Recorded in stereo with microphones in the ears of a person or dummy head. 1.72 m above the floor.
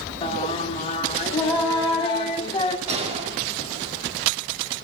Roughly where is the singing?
Left.